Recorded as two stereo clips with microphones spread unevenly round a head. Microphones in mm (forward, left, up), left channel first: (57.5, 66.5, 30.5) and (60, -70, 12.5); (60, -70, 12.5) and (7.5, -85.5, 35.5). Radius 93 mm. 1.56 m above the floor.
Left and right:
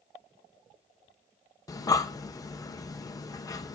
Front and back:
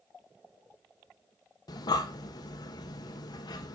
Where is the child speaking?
I don't hear a child speaking.